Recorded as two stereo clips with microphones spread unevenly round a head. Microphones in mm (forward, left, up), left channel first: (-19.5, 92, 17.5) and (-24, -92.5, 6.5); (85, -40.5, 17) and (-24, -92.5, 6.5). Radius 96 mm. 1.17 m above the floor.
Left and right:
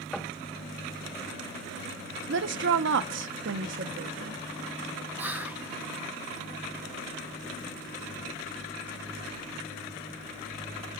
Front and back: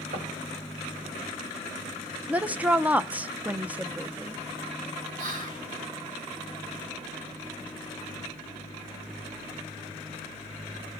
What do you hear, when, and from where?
0.1 s knocking: 175° left, 1.2 m
2.3 s a woman speaking: 80° right, 0.7 m
5.2 s whispering: 170° right, 1.6 m